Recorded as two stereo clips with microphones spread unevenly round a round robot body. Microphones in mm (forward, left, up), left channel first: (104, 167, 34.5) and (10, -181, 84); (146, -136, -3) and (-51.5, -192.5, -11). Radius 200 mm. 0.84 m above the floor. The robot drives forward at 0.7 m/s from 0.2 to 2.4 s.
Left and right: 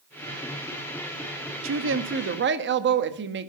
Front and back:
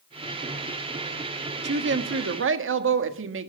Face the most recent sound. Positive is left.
turn(degrees=-170)